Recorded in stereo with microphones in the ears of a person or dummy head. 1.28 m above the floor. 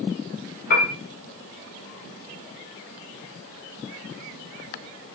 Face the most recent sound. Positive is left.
turn(degrees=55)  # may be behind; listen again after turning